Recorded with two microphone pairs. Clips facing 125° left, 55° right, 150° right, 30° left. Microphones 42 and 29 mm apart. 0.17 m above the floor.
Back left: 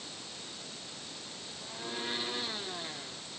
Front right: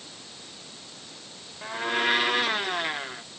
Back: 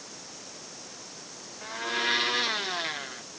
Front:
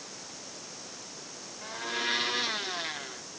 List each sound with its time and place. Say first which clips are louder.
1.6 s a blender: front right 14 dB, back 3 dB; 70° right